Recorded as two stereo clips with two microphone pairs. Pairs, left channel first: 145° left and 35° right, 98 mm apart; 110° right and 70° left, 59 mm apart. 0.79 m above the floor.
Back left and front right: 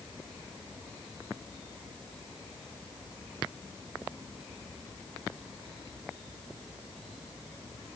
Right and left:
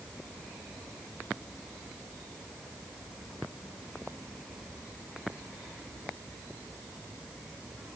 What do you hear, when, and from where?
Only background noise.